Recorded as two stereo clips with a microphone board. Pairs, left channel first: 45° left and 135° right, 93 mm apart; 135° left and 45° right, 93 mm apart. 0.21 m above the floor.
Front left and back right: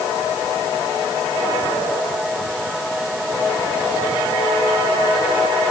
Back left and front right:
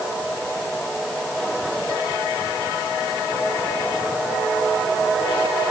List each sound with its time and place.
Only background noise.